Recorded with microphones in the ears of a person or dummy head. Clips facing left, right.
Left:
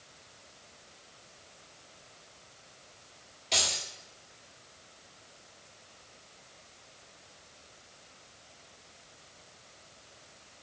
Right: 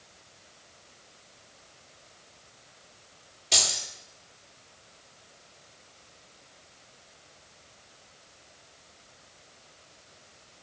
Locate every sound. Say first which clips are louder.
3.5 s keys jangling: right 1 dB; centre (ahead or behind), 1.6 m